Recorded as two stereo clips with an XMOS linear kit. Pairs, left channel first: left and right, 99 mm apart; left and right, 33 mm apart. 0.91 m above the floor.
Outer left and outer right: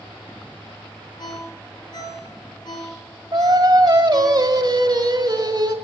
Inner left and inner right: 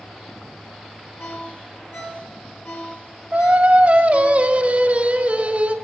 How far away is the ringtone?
About 4.5 m.